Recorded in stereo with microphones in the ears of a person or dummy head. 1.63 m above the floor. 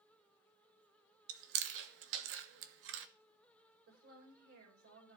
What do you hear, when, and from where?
1.3 s chewing: 60° right (ahead or behind), 1.0 m
3.9 s a woman speaking: 55° right (ahead or behind), 5.5 m